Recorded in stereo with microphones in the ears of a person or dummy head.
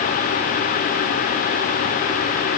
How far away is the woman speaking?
No woman speaking in this recording.